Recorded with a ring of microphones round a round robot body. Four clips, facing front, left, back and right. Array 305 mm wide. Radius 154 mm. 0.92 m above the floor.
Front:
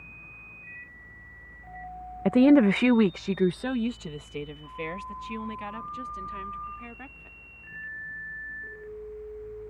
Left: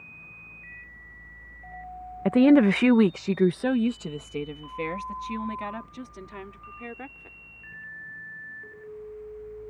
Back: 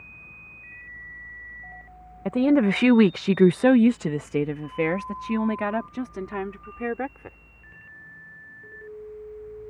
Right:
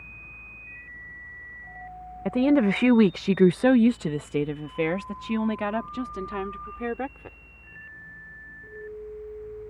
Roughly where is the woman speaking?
Ahead left.